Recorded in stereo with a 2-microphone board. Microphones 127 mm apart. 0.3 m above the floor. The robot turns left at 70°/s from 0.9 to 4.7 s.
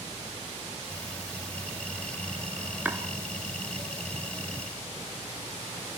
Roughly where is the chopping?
Centre.